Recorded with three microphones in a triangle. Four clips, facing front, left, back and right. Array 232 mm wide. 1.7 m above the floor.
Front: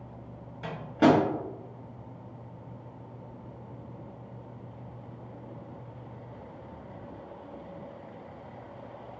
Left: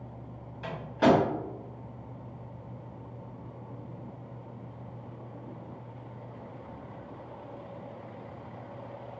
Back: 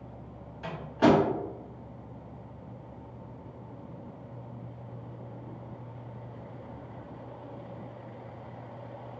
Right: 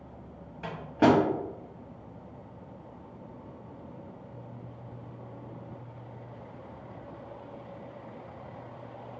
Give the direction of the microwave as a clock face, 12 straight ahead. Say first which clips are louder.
Right 1 dB, front 1 dB; 2 o'clock.